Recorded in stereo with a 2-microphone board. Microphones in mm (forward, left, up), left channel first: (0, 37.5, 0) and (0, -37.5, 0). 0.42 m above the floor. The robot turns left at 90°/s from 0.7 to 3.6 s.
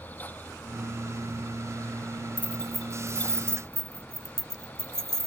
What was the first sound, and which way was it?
Keys jangling, 20° left (ahead or behind).